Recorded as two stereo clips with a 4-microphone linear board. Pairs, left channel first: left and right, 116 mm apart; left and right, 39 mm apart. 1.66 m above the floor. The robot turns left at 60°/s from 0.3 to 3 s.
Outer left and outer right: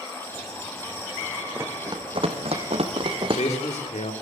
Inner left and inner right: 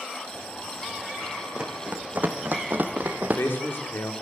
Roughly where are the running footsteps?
Centre.